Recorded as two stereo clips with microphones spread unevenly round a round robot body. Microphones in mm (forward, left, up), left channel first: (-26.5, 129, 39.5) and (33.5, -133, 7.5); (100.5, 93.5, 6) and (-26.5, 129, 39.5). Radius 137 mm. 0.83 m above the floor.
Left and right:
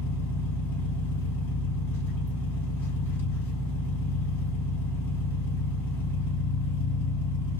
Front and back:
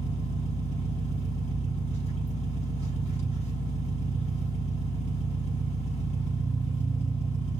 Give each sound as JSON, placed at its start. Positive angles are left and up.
{"t": 0.0, "sound": "an engine running", "azimuth_deg": 20, "distance_m": 4.5}